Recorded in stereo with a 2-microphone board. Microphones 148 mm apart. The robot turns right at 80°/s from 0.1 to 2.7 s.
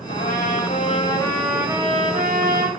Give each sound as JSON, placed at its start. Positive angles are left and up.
{"t": 0.1, "sound": "a trumpet", "azimuth_deg": 70, "distance_m": 3.0}